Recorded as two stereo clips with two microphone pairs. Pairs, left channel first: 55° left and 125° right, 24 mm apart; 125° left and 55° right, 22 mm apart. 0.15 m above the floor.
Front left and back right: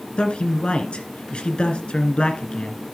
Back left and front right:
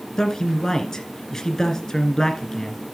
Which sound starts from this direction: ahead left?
A man speaking, at 0.2 s.